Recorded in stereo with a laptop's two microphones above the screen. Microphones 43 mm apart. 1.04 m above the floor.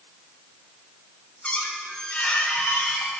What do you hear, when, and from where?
1.4 s a squeak: 30° left (ahead or behind), 0.9 m